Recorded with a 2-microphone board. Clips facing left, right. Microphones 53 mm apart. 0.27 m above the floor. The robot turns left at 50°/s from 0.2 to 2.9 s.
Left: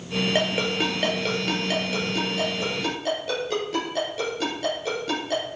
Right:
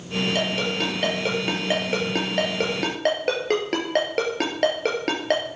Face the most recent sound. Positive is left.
turn(degrees=-80)